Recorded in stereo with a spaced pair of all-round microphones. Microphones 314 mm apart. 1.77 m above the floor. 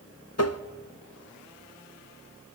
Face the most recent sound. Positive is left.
turn(degrees=50)  # may be behind; listen again after turning